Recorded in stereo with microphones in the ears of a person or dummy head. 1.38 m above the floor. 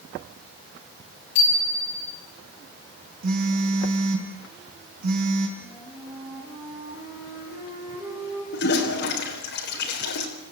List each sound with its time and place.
1.4 s a bicycle bell: 65° left (ahead or behind), 7.5 m
3.2 s a phone buzzing: 45° right (ahead or behind), 5.5 m
5.6 s a flute: 10° right (ahead or behind), 8 m
8.5 s a toilet flushing: 65° left (ahead or behind), 4 m